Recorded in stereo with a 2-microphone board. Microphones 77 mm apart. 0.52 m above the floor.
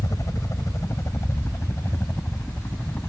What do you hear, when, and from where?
0.0 s a helicopter: 45° left (ahead or behind); by 3.1 s 25° left (ahead or behind)